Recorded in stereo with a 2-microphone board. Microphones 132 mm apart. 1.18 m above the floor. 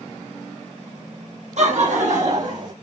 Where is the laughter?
60° right (ahead or behind), 1.2 m; by 2.7 s 65° right (ahead or behind), 2 m.